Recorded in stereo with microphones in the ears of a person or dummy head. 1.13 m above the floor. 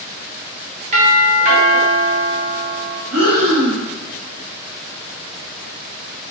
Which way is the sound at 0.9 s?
35° right (ahead or behind).